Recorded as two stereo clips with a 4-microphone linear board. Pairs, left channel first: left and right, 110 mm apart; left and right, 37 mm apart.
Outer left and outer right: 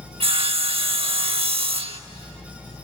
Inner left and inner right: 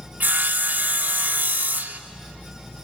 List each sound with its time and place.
0.2 s sawing: 55° right (ahead or behind), 1.0 m